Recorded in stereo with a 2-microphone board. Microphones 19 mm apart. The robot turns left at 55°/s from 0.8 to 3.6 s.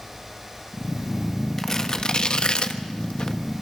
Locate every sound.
1.6 s tearing paper: 25° left (ahead or behind), 1.3 m; by 3.4 s 40° left (ahead or behind), 1.3 m